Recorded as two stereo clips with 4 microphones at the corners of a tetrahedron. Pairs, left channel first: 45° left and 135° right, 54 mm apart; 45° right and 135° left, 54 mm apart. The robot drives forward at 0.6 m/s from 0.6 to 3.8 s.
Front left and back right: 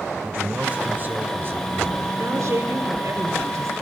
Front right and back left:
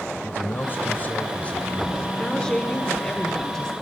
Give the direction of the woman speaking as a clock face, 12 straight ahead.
4 o'clock.